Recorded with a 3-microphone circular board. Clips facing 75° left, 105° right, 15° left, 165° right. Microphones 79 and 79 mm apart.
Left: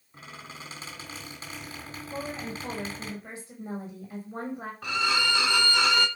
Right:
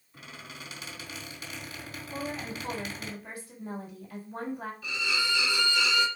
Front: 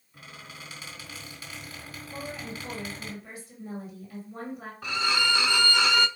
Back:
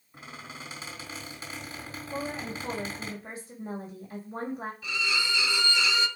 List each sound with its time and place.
0.1 s a squeak: 135° left, 3 m
2.1 s a woman speaking: 140° left, 2.5 m
4.8 s a violin: 50° left, 0.7 m